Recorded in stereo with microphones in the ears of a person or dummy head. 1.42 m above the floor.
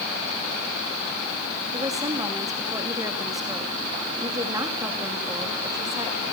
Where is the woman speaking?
20° right (ahead or behind), 2.5 m.